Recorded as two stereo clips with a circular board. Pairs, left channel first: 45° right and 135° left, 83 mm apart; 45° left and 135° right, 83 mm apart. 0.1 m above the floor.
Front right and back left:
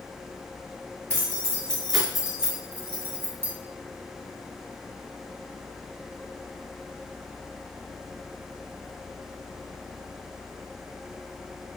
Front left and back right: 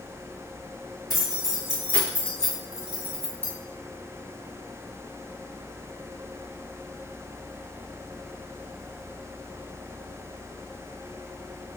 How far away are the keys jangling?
About 1.4 m.